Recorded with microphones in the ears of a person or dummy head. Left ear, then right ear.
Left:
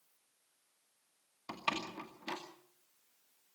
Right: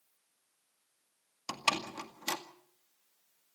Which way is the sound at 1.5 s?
70° right (ahead or behind).